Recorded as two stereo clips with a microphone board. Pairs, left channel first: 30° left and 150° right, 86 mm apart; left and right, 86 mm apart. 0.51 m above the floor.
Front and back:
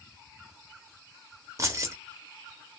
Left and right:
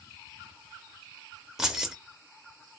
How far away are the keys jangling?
About 0.5 m.